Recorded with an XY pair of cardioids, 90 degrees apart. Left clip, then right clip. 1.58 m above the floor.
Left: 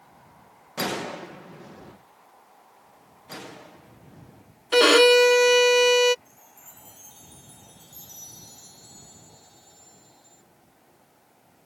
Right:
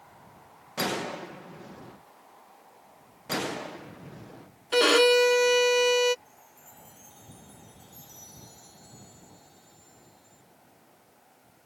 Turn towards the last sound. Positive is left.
turn(degrees=50)